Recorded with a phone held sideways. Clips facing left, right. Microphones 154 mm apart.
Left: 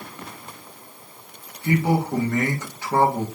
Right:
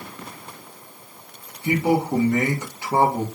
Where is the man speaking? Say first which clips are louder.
Right 1 dB; 15° right (ahead or behind), 1.1 m.